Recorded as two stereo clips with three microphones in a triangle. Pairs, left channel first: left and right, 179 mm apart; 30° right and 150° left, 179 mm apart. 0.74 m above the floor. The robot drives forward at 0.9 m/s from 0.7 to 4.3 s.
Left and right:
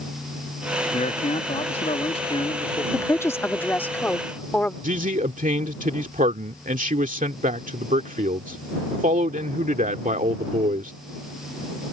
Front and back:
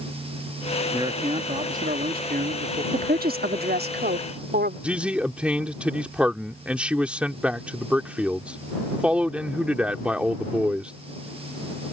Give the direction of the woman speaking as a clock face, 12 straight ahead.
7 o'clock.